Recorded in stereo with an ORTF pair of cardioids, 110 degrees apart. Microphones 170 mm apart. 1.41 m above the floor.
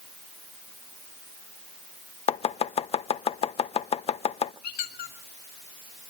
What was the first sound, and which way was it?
Chopping, 35° left.